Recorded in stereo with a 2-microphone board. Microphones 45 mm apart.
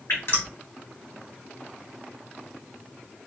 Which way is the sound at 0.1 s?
60° left (ahead or behind).